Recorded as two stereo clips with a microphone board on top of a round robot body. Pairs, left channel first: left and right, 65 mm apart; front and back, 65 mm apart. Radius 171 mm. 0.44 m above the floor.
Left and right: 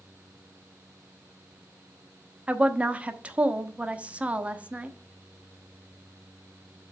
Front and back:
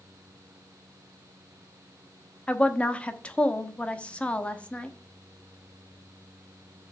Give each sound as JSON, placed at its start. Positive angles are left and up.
{"t": 2.5, "sound": "a woman speaking", "azimuth_deg": -50, "distance_m": 1.1}